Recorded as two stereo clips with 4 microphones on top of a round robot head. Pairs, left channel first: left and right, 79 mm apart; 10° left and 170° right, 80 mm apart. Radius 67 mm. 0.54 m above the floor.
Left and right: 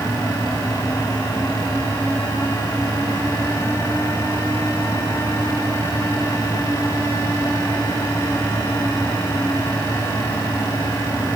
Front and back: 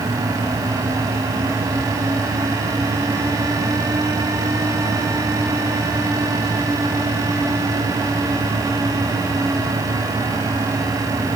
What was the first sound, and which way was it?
Only background noise.